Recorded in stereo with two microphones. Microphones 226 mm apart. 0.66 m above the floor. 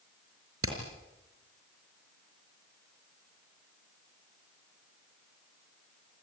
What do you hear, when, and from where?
0.6 s hammering: 75° right (ahead or behind), 5 m